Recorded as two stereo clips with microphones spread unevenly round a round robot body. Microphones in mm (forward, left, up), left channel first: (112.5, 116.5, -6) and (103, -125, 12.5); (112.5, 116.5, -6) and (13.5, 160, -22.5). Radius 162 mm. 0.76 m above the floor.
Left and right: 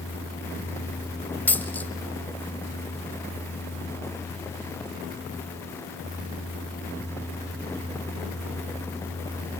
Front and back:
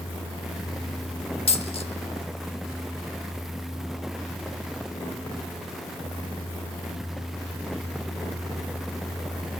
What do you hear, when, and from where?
1.5 s a dropped coin: 5° left, 1.2 m